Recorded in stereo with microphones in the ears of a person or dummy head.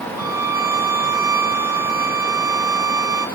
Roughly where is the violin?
Centre.